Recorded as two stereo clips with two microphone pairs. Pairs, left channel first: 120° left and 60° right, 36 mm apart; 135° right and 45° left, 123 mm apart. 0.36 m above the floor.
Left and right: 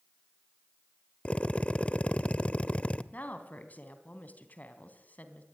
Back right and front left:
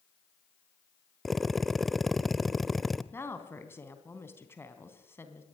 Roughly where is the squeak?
I don't hear a squeak.